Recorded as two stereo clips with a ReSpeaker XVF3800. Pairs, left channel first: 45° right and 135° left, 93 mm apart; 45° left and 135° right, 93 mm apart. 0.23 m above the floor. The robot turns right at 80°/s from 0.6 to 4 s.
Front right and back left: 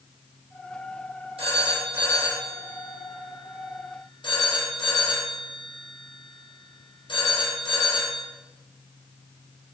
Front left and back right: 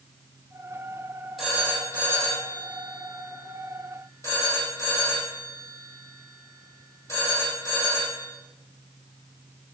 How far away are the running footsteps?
I don't hear running footsteps.